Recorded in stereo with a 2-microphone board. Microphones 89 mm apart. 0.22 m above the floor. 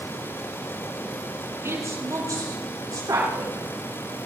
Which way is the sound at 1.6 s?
35° right (ahead or behind).